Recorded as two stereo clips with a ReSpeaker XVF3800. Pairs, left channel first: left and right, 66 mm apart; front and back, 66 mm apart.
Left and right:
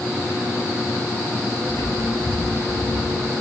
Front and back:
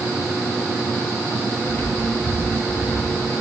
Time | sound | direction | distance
1.7 | footsteps | 55° left | 5 m